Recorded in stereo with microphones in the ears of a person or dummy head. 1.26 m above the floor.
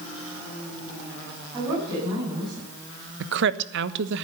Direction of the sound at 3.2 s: 70° right (ahead or behind).